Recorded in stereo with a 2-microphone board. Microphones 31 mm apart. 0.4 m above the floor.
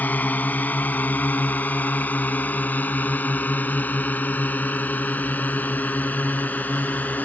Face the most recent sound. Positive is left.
turn(degrees=70)  # may be behind; listen again after turning